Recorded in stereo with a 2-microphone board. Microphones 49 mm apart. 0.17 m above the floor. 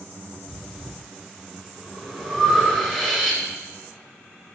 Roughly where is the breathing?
Centre.